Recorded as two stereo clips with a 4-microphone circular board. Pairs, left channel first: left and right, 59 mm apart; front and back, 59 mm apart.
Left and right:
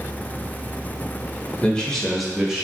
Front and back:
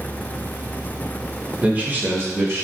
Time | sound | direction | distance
1.6 | a man speaking | 135° left | 0.9 m